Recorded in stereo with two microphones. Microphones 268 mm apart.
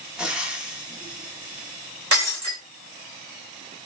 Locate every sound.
0.2 s frying: 5° right (ahead or behind), 0.7 m
2.1 s breaking glass: 55° right (ahead or behind), 1.3 m